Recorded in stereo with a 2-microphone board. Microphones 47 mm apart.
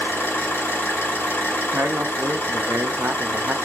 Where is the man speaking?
85° right, 0.7 m.